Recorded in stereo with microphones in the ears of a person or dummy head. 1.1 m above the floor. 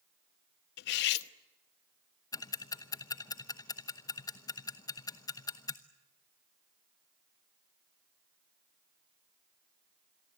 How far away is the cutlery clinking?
About 0.8 m.